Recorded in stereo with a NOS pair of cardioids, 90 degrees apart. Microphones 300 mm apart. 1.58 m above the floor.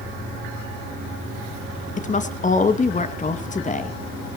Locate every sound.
2.0 s a woman speaking: 25° left, 2 m